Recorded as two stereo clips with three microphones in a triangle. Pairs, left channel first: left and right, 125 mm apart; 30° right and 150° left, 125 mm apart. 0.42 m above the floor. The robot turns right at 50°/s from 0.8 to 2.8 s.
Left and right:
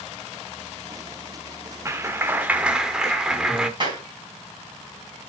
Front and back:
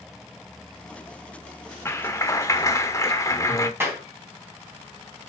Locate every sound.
1.9 s a clap: 60° right, 0.9 m; by 3.7 s 15° right, 0.9 m
3.8 s a clap: 140° right, 3 m